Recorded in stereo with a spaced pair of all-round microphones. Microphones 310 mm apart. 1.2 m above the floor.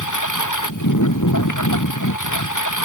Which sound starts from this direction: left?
A lawn mower, at 0.0 s.